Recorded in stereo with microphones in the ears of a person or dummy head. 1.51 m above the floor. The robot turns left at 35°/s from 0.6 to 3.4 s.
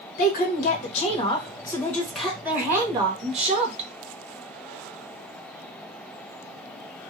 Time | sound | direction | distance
0.2 | a woman speaking | 50° left | 1.1 m